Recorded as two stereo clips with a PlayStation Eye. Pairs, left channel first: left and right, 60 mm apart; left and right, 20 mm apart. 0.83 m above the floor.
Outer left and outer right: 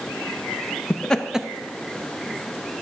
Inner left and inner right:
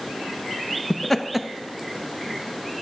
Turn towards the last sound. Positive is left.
turn(degrees=-40)  # may be behind; listen again after turning